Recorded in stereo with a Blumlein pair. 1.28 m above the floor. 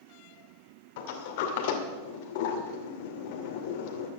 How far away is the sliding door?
About 2 m.